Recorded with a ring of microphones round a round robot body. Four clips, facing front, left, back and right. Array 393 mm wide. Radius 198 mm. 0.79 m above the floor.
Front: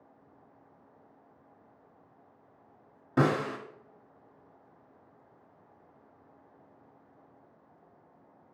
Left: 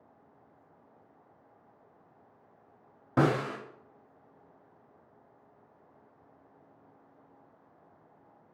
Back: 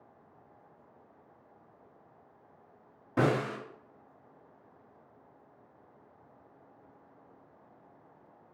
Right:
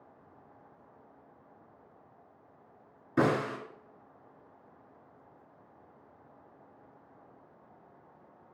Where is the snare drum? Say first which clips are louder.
Left 1 dB, front 1 dB; 80° left, 1.0 m.